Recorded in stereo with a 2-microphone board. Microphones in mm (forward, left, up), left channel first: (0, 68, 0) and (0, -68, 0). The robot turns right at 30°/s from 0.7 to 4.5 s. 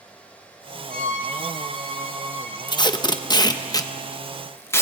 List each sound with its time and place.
0.9 s a violin: 85° right, 3 m; by 2.6 s 35° right, 3 m
2.7 s tape being pulled: 30° left (ahead or behind), 0.8 m; by 4.8 s 20° left (ahead or behind), 0.8 m